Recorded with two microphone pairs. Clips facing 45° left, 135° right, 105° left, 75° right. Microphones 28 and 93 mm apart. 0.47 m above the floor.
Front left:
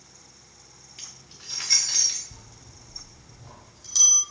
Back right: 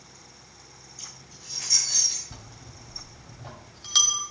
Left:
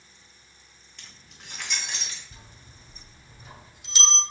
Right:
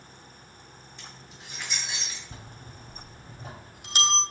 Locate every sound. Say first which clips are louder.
1.0 s keys jangling: front left 1 dB, right 2 dB; 75° left, 3 m; by 2.2 s 90° left, 3.5 m
2.3 s a bell: back right 4 dB, right 6 dB; 115° right, 1.7 m